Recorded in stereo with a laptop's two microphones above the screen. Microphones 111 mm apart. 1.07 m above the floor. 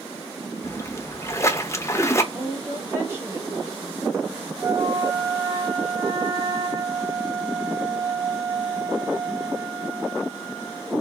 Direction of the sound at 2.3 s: 25° right (ahead or behind).